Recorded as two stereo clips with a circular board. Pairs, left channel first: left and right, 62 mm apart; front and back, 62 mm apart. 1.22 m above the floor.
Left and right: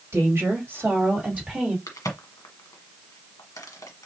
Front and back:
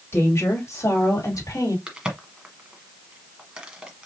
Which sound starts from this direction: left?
A crack, at 1.9 s.